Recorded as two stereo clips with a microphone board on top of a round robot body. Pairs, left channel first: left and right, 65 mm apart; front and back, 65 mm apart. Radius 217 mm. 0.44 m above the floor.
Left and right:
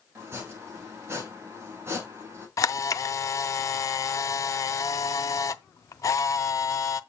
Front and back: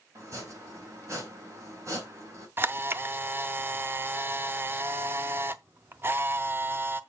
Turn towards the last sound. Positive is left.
turn(degrees=125)